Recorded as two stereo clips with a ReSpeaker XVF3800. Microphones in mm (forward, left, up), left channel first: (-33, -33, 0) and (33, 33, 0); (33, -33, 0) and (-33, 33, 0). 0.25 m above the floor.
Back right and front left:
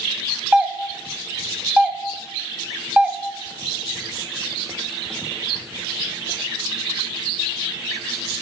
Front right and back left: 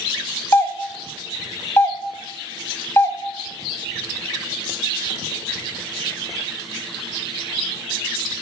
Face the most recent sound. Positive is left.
turn(degrees=-20)